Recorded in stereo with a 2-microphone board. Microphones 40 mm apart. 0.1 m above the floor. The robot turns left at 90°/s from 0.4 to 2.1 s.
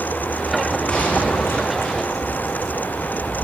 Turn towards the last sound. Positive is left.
turn(degrees=45)